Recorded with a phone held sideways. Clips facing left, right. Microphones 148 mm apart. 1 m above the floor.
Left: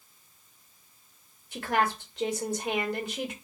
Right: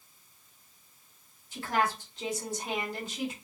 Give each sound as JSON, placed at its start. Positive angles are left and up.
{"t": 1.5, "sound": "a woman speaking", "side_deg": 60, "distance_m": 1.8}